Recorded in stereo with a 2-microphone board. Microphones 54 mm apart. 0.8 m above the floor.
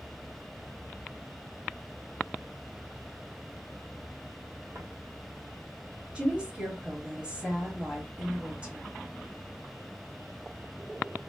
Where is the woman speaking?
20° right (ahead or behind), 1.3 m.